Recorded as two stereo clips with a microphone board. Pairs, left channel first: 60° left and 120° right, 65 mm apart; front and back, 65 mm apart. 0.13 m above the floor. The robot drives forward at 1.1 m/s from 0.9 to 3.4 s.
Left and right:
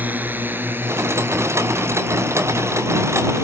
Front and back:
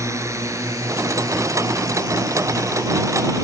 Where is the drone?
170° right; by 3.5 s 160° right.